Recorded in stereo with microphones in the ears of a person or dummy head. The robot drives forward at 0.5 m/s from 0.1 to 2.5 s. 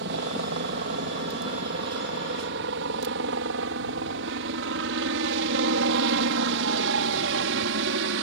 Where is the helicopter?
60° right (ahead or behind); by 8.2 s 65° right (ahead or behind).